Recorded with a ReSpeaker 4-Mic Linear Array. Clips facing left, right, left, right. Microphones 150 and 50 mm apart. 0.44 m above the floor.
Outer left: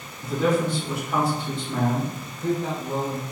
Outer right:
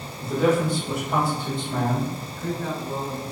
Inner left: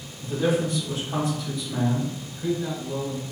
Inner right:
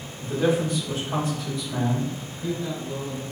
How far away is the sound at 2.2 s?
About 1.7 m.